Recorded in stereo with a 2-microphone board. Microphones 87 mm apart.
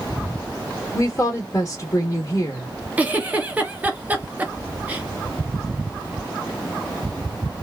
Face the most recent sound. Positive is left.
turn(degrees=-20)  # may be behind; listen again after turning